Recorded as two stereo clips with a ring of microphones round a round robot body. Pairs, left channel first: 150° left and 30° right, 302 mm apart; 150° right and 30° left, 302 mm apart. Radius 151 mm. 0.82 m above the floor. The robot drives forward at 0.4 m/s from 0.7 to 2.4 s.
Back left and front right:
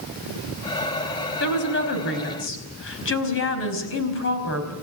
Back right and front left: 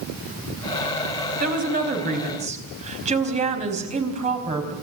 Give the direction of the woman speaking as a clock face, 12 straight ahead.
9 o'clock.